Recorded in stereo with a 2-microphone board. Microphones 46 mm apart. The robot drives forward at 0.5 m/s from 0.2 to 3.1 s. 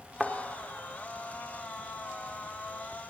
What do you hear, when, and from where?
0.2 s a thud: 5° right (ahead or behind), 1.1 m